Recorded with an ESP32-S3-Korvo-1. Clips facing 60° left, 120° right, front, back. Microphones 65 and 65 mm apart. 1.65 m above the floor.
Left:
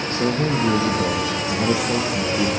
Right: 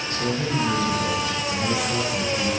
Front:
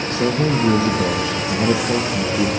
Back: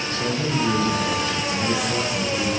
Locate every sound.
0.1 s a man speaking: 10° left, 1.1 m